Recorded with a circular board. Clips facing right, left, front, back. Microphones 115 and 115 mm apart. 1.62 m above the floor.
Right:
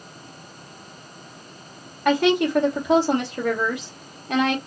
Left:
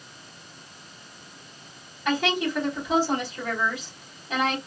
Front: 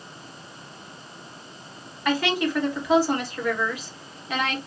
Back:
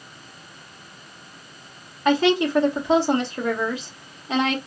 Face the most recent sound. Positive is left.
turn(degrees=-115)